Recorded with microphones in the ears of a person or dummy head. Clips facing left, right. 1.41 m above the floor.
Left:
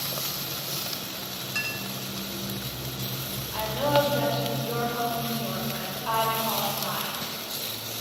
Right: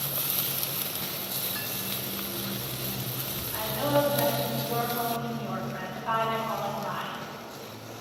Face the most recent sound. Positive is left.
turn(degrees=70)  # may be behind; listen again after turning